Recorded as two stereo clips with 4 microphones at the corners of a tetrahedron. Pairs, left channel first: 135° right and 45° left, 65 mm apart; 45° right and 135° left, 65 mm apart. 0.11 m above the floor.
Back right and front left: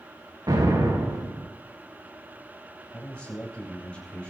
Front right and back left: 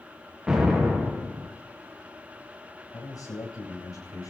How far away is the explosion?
About 5 m.